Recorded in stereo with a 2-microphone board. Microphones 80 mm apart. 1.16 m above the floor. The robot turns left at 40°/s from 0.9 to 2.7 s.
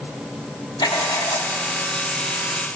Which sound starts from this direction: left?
Writing, at 0.8 s.